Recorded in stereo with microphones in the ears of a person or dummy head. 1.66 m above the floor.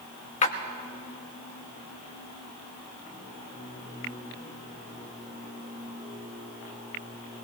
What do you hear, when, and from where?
0.4 s a splash: 40° left (ahead or behind), 0.9 m